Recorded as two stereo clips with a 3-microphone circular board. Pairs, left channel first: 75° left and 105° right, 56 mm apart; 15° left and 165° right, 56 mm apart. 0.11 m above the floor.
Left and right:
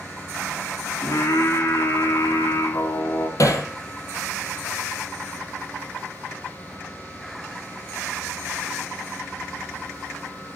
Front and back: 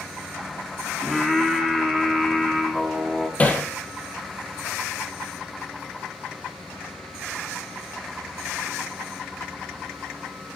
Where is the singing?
110° left, 3 m.